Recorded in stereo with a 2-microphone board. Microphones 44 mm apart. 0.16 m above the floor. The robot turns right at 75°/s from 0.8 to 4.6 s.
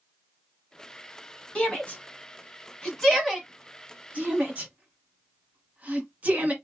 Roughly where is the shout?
Left.